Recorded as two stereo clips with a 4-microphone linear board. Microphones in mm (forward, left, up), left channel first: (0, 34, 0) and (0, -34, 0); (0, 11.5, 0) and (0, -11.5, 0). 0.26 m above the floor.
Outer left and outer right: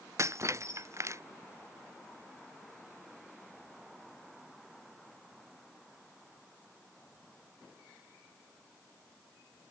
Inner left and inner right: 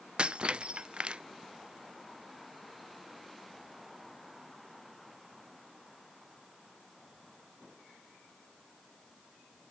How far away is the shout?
No shout in this recording.